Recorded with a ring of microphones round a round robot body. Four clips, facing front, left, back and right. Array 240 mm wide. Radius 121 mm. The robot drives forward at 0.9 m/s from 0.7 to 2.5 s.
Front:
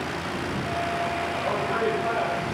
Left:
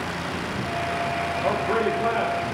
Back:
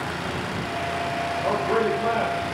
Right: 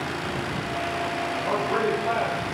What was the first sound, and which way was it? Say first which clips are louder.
A man speaking: left 1 dB, back 4 dB; 115° left.